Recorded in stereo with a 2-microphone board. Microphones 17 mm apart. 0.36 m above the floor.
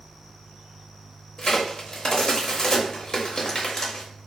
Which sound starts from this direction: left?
A crack, at 1.4 s.